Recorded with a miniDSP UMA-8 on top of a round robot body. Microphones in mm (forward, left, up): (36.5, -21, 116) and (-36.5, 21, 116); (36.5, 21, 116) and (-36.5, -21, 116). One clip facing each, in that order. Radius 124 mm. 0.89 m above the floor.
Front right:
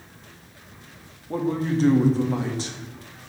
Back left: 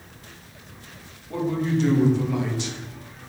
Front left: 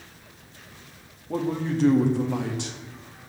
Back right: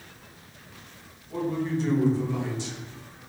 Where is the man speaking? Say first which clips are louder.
Even, front left 1 dB; 20° left, 1.8 m.